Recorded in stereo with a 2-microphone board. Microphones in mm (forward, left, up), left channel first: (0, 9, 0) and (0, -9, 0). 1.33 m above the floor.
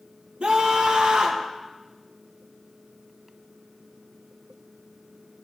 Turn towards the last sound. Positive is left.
turn(degrees=-85)